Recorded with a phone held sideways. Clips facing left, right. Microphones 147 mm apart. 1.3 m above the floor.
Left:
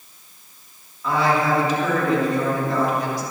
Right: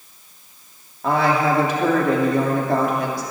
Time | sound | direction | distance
1.0 | a woman speaking | 60° right (ahead or behind) | 3 m